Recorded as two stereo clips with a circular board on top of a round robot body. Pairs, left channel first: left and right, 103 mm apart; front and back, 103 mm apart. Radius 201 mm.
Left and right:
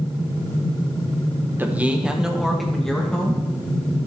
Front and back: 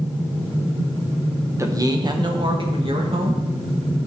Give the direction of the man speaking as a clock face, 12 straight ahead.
5 o'clock.